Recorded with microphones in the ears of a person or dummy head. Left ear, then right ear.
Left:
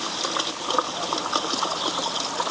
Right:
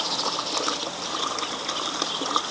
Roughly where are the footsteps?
No footsteps in this recording.